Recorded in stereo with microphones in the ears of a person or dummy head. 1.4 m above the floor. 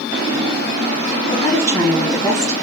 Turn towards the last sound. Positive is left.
turn(degrees=25)  # may be behind; listen again after turning